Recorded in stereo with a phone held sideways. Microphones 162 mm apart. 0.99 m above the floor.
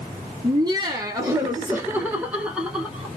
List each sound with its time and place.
0.4 s laughter: 25° right (ahead or behind), 0.9 m; by 3.1 s 5° right (ahead or behind), 1.5 m